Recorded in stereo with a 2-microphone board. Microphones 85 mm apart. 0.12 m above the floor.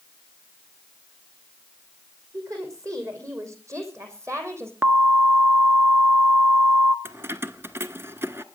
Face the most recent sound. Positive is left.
turn(degrees=-30)  # may be behind; listen again after turning